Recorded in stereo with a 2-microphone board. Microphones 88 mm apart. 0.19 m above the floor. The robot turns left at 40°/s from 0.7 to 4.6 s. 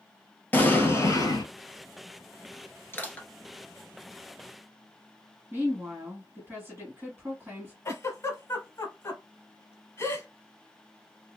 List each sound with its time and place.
0.5 s an explosion: 160° left, 0.9 m; by 1.5 s 130° left, 0.9 m
2.9 s crushing: 25° left (ahead or behind), 0.9 m; by 3.3 s 10° left (ahead or behind), 0.9 m
5.5 s a woman speaking: 25° right (ahead or behind), 1.4 m
7.8 s a giggle: 30° left (ahead or behind), 0.8 m